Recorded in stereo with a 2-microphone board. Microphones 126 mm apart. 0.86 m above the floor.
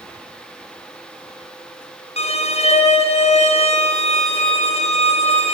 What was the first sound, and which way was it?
A violin, 55° left (ahead or behind).